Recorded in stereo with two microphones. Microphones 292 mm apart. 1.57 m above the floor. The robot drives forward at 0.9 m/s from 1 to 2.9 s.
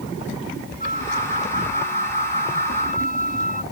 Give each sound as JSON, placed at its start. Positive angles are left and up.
{"t": 0.8, "sound": "a flute", "side_deg": 30}